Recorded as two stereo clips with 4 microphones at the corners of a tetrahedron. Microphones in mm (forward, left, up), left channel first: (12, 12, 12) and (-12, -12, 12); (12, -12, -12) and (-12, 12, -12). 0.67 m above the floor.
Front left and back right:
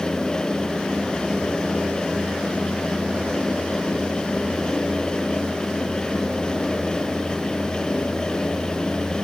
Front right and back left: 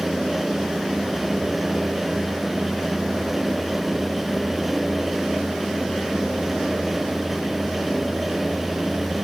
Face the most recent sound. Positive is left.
No sound to turn to.